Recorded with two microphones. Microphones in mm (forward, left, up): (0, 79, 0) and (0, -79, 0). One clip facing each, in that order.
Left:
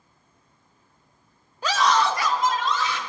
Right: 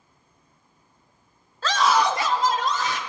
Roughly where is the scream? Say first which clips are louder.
Right 1 dB; centre.